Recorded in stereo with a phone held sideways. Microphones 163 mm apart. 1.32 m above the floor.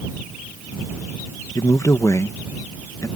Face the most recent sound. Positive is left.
turn(degrees=20)  # may be behind; listen again after turning